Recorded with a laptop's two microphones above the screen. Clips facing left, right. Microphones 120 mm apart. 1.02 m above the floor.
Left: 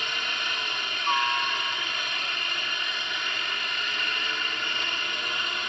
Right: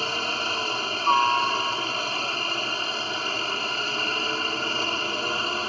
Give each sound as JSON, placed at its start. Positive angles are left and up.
{"t": 0.0, "sound": "a helicopter", "side_deg": -35}